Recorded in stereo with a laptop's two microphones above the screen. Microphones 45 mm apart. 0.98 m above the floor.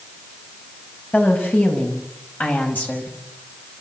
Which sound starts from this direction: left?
A woman speaking, at 1.1 s.